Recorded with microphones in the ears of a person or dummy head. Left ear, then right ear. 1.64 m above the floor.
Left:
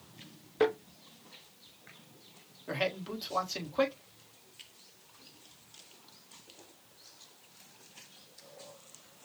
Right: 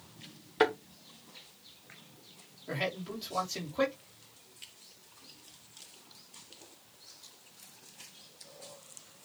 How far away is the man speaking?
About 1.5 m.